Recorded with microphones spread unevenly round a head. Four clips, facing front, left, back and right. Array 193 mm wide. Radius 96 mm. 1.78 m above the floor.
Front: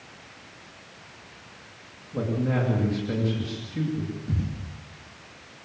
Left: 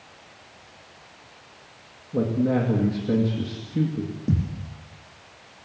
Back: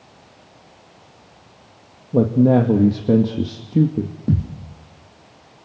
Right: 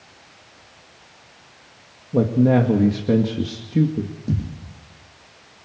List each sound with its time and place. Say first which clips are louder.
2.1 s a man speaking: right 6 dB, back 12 dB; 160° right, 2.5 m
4.3 s a thud: left 3 dB, back 9 dB; 170° left, 6 m